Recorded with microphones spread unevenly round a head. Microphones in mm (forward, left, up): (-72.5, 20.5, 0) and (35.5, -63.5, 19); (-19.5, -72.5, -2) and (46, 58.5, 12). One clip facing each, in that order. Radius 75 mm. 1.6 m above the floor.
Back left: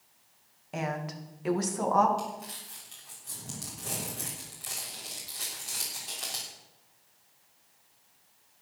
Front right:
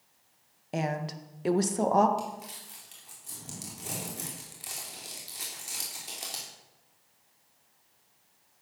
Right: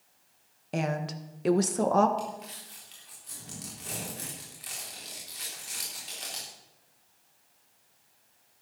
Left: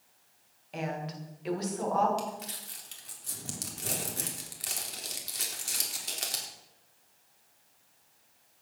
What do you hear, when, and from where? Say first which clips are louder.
0.7 s a woman speaking: front right 2 dB, right 5 dB; 90° right, 1.6 m
2.2 s crumpling: even, even; 35° left, 3.5 m